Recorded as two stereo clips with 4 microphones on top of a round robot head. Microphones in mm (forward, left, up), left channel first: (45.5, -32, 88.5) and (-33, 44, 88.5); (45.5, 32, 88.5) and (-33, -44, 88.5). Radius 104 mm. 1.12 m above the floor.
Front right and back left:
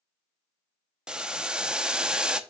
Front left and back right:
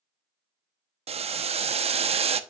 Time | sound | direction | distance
1.1 | boiling | 145° right | 0.8 m